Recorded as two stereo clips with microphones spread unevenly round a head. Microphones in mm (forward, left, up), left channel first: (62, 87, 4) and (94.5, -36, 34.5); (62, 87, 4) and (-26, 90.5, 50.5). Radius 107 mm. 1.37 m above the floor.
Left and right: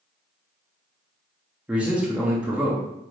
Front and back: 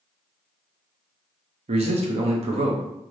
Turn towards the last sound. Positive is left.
turn(degrees=-170)